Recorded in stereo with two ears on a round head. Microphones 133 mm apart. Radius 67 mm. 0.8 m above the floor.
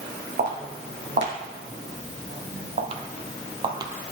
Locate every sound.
0.4 s footsteps: 55° right (ahead or behind), 2.0 m; by 3.9 s 25° right (ahead or behind), 1.0 m